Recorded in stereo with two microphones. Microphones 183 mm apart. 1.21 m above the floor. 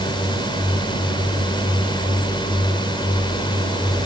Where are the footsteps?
No footsteps in this recording.